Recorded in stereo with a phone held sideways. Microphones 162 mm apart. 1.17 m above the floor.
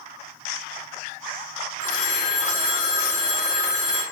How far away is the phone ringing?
About 1.4 m.